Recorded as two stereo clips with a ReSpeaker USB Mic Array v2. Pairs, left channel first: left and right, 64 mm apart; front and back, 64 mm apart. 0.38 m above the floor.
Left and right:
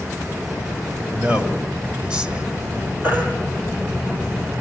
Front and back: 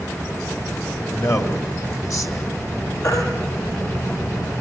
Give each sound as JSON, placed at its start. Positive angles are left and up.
{"t": 1.1, "sound": "a man speaking", "azimuth_deg": -20, "distance_m": 2.5}
{"t": 3.0, "sound": "a baby crying", "azimuth_deg": -30, "distance_m": 5.0}